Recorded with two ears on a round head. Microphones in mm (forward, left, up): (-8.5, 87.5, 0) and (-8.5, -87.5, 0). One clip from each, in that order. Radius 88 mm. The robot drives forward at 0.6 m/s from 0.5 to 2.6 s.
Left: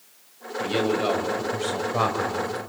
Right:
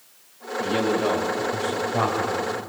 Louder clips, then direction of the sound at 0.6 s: Right 1 dB; 35° left (ahead or behind).